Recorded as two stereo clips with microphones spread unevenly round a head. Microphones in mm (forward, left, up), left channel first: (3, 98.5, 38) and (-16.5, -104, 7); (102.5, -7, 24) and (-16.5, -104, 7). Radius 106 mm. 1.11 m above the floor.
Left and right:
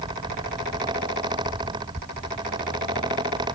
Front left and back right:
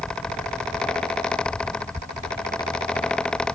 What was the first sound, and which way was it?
Only background noise.